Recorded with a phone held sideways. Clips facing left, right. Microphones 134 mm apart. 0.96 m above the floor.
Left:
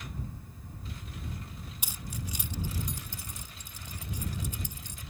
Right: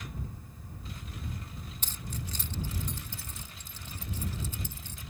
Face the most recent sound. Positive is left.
turn(degrees=15)  # may be behind; listen again after turning